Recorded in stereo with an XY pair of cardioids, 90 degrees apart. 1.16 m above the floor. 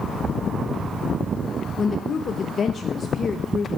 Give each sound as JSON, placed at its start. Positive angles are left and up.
{"t": 1.8, "sound": "a woman speaking", "azimuth_deg": 50, "distance_m": 0.9}